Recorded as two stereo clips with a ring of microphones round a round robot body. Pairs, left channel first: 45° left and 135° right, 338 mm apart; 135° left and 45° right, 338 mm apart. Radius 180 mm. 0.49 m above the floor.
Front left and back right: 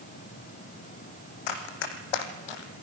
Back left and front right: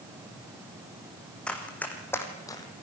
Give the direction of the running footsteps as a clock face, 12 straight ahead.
10 o'clock.